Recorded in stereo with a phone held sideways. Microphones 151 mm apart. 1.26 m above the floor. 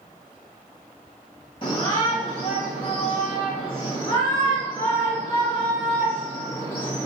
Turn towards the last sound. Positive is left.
turn(degrees=35)  # may be behind; listen again after turning